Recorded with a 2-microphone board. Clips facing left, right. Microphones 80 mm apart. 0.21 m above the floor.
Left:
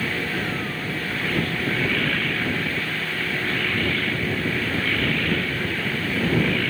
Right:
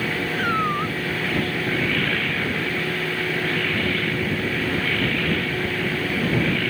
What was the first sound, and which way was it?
A cat meowing, 60° right (ahead or behind).